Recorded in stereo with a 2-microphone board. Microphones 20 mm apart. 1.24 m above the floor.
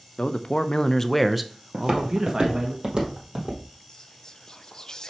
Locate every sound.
0.2 s a man speaking: 70° left (ahead or behind), 0.7 m; by 2.7 s 45° right (ahead or behind), 1.3 m
1.7 s footsteps: 50° right (ahead or behind), 2.0 m; by 3.6 s 55° right (ahead or behind), 3 m
3.9 s whispering: 40° left (ahead or behind), 0.6 m